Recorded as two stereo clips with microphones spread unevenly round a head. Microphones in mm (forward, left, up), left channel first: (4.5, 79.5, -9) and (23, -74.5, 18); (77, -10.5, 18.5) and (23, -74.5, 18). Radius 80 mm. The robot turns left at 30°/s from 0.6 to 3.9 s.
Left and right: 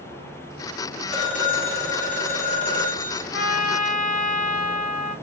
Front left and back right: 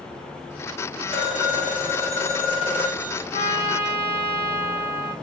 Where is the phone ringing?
155° left, 1.9 m; by 3.2 s 95° left, 1.9 m.